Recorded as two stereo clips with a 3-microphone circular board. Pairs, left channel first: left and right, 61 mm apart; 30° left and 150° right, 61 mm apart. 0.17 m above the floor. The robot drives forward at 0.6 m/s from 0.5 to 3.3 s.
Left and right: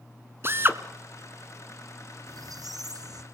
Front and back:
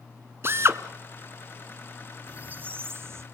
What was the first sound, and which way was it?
A drill, 120° right.